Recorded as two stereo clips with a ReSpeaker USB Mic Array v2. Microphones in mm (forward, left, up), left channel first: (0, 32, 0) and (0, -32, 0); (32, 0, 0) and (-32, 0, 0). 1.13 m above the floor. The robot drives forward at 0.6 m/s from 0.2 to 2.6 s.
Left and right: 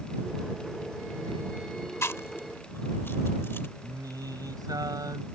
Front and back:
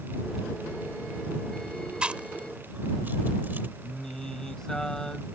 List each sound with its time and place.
2.0 s chewing: 110° left; by 3.7 s 130° left
3.8 s singing: 80° right